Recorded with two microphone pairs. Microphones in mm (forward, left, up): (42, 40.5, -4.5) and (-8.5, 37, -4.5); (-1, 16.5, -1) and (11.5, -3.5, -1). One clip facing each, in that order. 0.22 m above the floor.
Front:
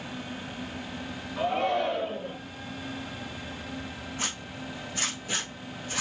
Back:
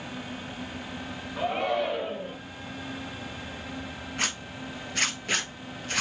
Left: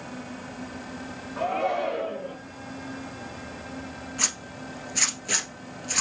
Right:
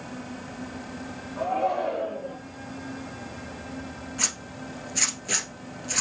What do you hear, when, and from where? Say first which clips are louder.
1.4 s a shout: front 1 dB, even; 105° left, 1.8 m
4.2 s a zipper: back 5 dB, left 1 dB; 160° right, 1.0 m